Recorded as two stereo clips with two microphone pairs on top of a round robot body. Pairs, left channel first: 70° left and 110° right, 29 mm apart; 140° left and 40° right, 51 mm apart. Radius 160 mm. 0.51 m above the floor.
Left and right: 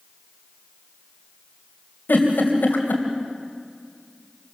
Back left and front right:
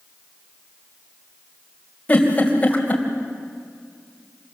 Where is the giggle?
75° left, 3 m.